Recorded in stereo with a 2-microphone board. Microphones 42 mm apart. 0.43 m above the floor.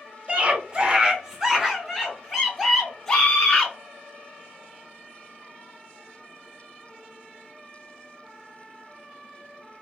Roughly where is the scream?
Right.